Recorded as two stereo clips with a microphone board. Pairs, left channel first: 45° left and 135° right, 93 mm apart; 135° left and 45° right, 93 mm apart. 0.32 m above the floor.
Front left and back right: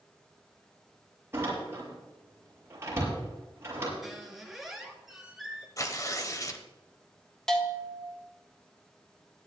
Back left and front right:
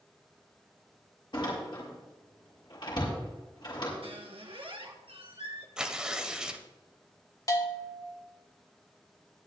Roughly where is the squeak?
Ahead right.